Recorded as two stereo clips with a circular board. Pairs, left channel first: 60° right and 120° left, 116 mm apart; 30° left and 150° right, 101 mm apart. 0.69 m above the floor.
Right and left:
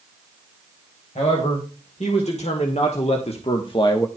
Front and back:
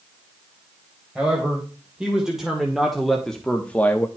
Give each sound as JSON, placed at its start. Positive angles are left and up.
{"t": 1.1, "sound": "a man speaking", "azimuth_deg": -70, "distance_m": 3.5}